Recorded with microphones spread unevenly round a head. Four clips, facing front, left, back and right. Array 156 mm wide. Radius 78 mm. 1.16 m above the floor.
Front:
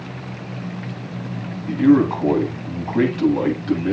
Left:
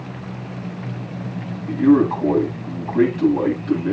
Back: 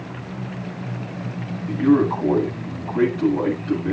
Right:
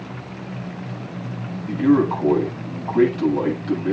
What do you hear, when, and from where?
1.7 s a man speaking: 10° right, 9 m